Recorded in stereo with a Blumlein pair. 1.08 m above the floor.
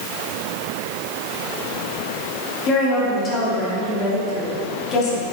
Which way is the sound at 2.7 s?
30° left.